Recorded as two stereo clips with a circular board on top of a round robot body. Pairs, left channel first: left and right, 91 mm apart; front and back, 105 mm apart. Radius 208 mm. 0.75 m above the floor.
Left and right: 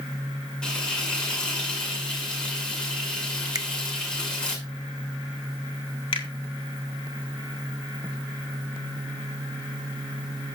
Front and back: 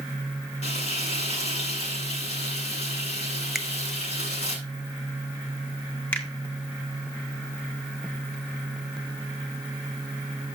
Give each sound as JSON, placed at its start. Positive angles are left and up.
{"t": 0.6, "sound": "frying", "azimuth_deg": 10, "distance_m": 6.5}
{"t": 3.5, "sound": "a finger snap", "azimuth_deg": -95, "distance_m": 1.0}
{"t": 6.1, "sound": "a finger snap", "azimuth_deg": 70, "distance_m": 2.5}